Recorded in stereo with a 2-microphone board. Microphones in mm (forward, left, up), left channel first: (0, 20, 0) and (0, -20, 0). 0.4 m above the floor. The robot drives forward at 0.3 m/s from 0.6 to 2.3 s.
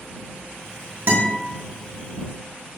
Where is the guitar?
65° right (ahead or behind), 1.0 m.